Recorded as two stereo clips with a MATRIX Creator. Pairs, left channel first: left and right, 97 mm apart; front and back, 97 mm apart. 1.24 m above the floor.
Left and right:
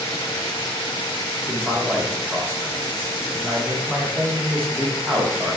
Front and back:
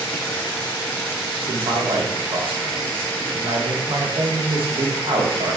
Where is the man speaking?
160° right, 1.0 m.